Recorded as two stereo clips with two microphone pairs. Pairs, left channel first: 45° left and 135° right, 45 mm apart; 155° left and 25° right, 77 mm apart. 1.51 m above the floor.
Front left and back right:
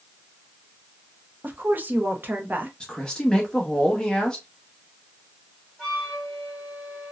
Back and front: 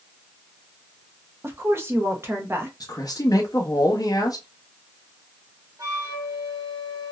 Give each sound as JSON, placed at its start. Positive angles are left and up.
{"t": 1.4, "sound": "a woman speaking", "azimuth_deg": -85, "distance_m": 0.6}
{"t": 2.8, "sound": "a man speaking", "azimuth_deg": 115, "distance_m": 0.8}
{"t": 5.8, "sound": "a flute", "azimuth_deg": -40, "distance_m": 1.4}